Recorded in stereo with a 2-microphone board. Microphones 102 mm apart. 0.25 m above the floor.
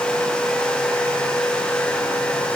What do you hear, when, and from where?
Only background noise.